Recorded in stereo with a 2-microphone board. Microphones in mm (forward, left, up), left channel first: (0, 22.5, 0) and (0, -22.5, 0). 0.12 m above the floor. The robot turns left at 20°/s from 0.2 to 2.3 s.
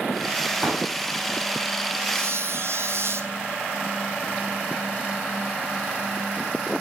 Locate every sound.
0.6 s a pop: 35° right (ahead or behind), 7 m; by 0.9 s 40° right (ahead or behind), 7 m
2.1 s a squeak: 75° right (ahead or behind), 2.5 m